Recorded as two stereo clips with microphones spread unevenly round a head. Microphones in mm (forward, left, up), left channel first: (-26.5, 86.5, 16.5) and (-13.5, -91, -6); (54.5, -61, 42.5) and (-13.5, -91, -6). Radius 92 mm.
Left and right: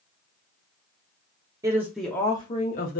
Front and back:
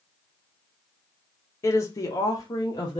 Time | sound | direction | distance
1.6 | a woman speaking | 10° right | 0.7 m